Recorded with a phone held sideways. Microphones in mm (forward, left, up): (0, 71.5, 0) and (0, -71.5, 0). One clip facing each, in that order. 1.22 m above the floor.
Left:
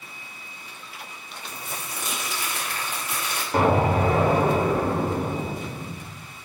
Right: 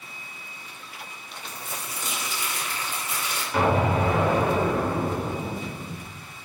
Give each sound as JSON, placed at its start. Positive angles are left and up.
{"t": 1.5, "sound": "crumpling", "side_deg": 60, "distance_m": 2.5}
{"t": 3.5, "sound": "an explosion", "side_deg": 40, "distance_m": 1.1}